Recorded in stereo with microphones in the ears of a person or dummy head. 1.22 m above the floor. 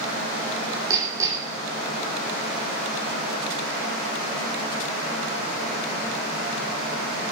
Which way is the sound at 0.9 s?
15° right (ahead or behind).